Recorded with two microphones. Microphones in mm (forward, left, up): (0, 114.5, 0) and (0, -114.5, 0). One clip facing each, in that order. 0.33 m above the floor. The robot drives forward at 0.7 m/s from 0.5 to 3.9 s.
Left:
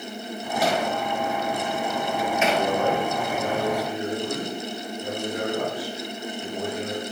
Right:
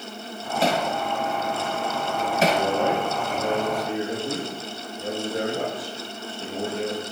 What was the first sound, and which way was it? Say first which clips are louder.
Hammering: right 1 dB; 25° right (ahead or behind).